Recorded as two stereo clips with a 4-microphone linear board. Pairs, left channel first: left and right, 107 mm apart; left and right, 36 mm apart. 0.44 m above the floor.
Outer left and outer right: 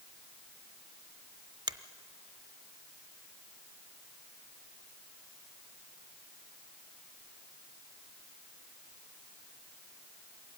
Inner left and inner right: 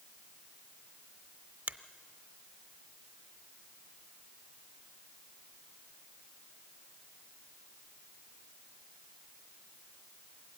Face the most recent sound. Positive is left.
turn(degrees=-40)  # may be behind; listen again after turning